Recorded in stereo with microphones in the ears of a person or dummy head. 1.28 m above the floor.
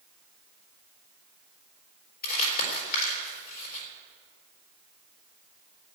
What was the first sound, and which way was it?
Crumpling, 60° left (ahead or behind).